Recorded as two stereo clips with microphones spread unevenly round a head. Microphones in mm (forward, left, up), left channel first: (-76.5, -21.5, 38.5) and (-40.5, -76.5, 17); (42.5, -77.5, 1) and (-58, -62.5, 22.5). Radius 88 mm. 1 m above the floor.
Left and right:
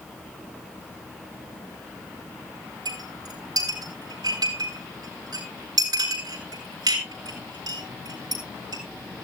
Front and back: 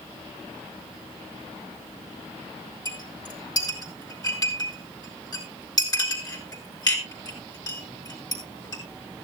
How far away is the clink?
About 7.5 m.